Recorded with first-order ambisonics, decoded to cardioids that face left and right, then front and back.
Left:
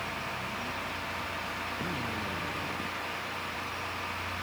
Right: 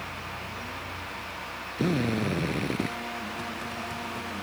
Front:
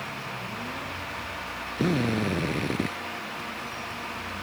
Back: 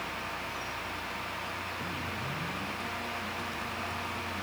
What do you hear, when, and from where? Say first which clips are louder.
1.8 s a drill: right 5 dB, front 9 dB; 40° right